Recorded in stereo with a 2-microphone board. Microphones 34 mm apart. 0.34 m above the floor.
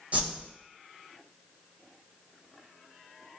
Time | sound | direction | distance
0.1 | a whoosh | 40° right (ahead or behind) | 1.4 m